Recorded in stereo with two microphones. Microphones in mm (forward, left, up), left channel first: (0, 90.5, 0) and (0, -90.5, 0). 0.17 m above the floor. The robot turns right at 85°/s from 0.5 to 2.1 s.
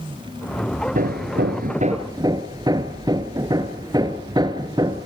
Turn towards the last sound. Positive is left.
turn(degrees=-25)